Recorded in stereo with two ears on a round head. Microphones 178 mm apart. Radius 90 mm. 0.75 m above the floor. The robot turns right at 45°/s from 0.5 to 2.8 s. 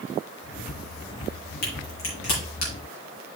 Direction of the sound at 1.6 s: 50° left (ahead or behind).